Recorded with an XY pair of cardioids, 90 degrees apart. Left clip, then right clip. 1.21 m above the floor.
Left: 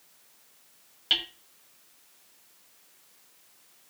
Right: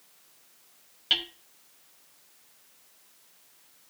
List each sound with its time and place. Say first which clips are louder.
1.1 s hammering: even; straight ahead, 1.2 m